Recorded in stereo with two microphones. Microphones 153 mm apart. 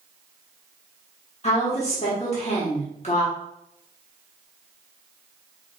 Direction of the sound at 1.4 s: 45° left (ahead or behind).